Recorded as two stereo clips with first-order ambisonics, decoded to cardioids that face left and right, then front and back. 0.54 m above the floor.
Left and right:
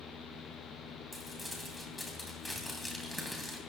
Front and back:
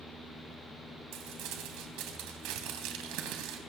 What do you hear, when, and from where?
1.1 s crumpling: straight behind, 3 m